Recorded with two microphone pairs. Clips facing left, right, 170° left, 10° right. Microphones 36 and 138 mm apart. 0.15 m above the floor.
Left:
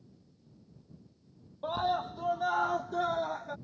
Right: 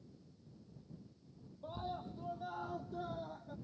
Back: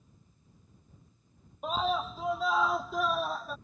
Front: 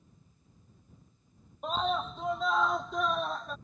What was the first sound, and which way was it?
A scream, 80° left.